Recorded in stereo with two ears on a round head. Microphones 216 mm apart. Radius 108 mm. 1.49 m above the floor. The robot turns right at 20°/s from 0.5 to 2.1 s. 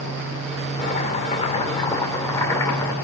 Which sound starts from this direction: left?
Chopping, at 0.8 s.